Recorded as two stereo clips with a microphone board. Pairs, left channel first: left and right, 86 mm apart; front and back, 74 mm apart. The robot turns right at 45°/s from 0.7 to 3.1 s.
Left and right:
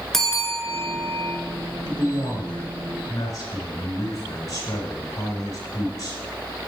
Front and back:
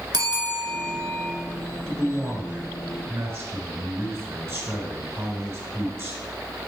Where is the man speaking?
80° left, 2.5 m; by 6.2 s 135° left, 2.5 m.